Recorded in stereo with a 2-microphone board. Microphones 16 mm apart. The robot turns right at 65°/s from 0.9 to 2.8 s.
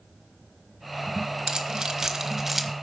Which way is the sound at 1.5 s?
40° right (ahead or behind).